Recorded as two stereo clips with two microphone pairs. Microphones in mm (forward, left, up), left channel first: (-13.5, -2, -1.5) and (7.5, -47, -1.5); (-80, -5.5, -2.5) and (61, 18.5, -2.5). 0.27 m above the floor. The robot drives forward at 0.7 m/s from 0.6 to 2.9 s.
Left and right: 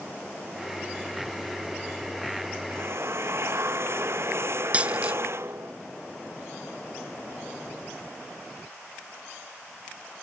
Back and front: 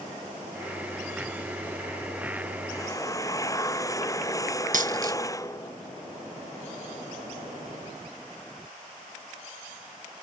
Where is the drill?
100° right; by 5.7 s 105° right.